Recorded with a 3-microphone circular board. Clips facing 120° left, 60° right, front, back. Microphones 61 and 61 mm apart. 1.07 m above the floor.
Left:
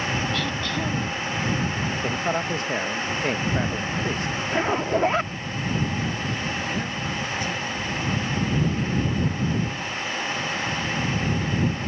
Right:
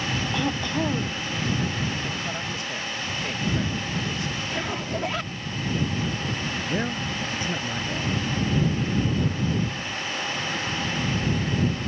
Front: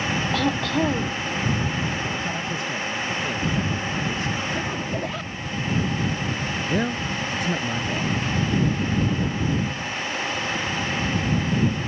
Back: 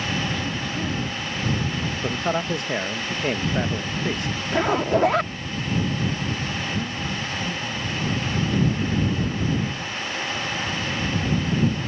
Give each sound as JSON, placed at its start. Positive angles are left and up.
{"t": 0.3, "sound": "throat clearing", "azimuth_deg": 10}
{"t": 2.0, "sound": "a man speaking", "azimuth_deg": 160}
{"t": 4.5, "sound": "a zipper", "azimuth_deg": 175}
{"t": 6.7, "sound": "a man speaking", "azimuth_deg": 5}